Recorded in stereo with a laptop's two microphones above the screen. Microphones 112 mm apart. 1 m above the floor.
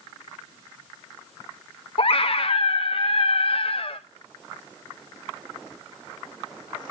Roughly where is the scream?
Left.